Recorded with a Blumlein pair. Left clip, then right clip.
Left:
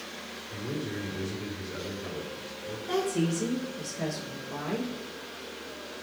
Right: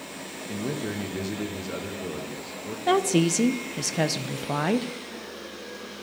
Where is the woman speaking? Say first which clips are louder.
Right 7 dB; 45° right, 0.8 m.